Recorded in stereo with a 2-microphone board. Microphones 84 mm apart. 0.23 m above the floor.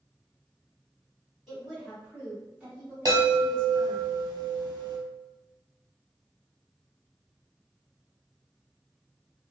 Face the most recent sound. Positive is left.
turn(degrees=-50)  # may be behind; listen again after turning